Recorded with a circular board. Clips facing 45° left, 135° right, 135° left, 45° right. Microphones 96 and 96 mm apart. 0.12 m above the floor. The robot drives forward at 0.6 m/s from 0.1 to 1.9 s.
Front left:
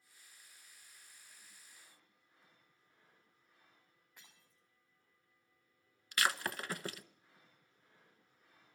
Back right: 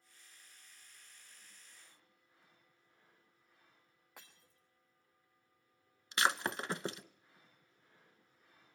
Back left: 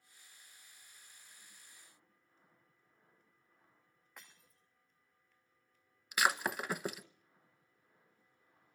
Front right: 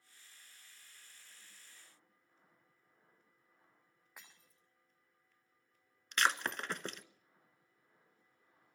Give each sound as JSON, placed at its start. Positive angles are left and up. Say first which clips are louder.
{"t": 4.2, "sound": "breaking glass", "louder": "back right 6 dB, back left 1 dB", "azimuth_deg": -130, "distance_m": 8.5}
{"t": 6.1, "sound": "breaking glass", "louder": "back right 2 dB, back left 1 dB", "azimuth_deg": -155, "distance_m": 0.8}